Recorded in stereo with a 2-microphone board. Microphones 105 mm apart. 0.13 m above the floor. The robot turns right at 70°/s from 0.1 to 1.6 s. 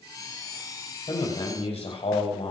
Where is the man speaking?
55° left, 6 m; by 2.5 s 95° left, 6 m.